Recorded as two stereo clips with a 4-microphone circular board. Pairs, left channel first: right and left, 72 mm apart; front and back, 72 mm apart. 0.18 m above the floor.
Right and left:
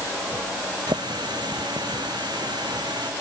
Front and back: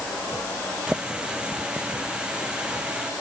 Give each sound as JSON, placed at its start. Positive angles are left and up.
{"t": 0.9, "sound": "a running tap", "azimuth_deg": 100}